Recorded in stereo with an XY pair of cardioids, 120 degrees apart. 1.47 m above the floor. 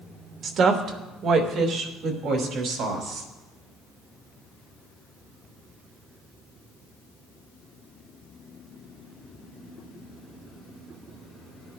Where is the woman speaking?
50° right, 1.3 m; by 3.3 s 65° right, 3 m.